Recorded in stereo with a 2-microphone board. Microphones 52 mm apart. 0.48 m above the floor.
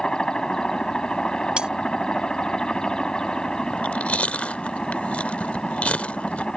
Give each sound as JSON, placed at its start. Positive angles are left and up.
{"t": 0.0, "sound": "a helicopter", "side_deg": 15}
{"t": 1.6, "sound": "cutlery clinking", "side_deg": -20}
{"t": 3.7, "sound": "chewing", "side_deg": 25}